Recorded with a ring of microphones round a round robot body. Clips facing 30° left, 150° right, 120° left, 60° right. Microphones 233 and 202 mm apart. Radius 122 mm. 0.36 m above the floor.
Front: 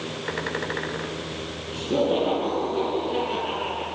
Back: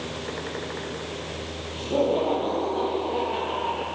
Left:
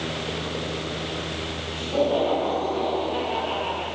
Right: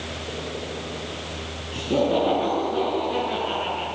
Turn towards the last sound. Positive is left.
turn(degrees=-15)